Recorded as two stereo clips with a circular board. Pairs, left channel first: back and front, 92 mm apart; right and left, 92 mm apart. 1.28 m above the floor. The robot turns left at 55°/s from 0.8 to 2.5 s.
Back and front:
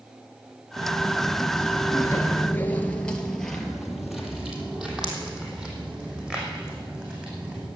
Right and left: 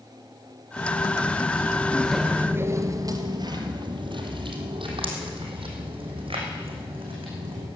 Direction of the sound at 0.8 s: 45° right.